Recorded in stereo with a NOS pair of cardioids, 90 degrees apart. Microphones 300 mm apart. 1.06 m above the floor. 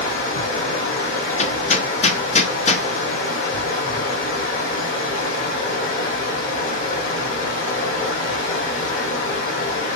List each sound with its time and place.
0.0 s running water: 40° left, 1.9 m
1.4 s hammering: 25° left, 0.7 m